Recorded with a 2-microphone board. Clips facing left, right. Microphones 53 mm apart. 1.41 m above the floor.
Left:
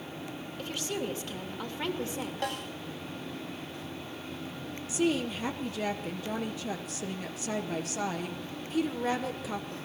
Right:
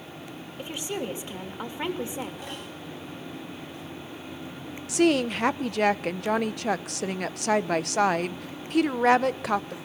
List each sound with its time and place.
0.6 s a woman speaking: 20° right (ahead or behind), 3 m
2.4 s a snare drum: 70° left (ahead or behind), 10 m
4.9 s a woman speaking: 70° right (ahead or behind), 0.9 m